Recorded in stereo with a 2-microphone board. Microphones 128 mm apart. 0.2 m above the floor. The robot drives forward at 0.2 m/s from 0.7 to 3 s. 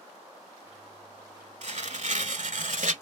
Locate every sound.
1.6 s tearing paper: 60° right (ahead or behind), 0.7 m; by 2.9 s 75° right (ahead or behind), 0.6 m